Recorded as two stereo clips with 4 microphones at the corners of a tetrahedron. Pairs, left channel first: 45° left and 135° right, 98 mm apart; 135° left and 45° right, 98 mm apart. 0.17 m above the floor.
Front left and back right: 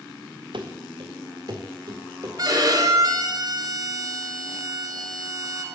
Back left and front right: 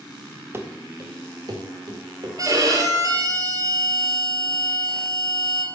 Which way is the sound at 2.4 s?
90° right.